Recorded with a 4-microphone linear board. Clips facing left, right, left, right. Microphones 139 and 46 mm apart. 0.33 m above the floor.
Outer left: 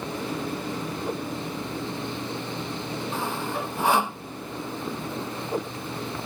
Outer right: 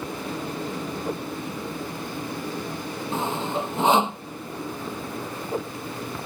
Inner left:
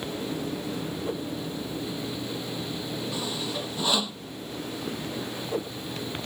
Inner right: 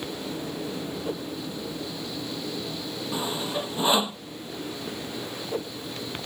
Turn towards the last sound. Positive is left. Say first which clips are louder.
# outer right 5 dB, inner right 6 dB
turn(degrees=-20)  # may be behind; listen again after turning